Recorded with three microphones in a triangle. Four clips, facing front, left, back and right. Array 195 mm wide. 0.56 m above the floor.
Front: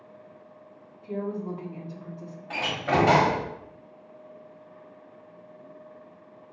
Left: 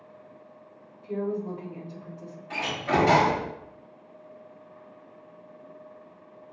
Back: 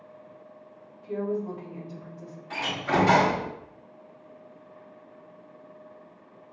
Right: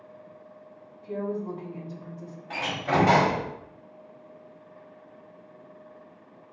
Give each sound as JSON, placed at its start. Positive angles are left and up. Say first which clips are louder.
{"t": 1.0, "sound": "a woman speaking", "louder": "left 1 dB, back 2 dB", "azimuth_deg": -20, "distance_m": 1.3}
{"t": 2.5, "sound": "a door slam", "louder": "even, front 1 dB", "azimuth_deg": -25, "distance_m": 1.6}